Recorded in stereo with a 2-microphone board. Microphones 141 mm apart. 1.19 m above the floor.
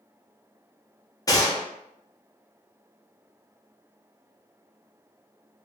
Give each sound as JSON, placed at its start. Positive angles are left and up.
{"t": 1.3, "sound": "a gunshot", "side_deg": 25, "distance_m": 0.7}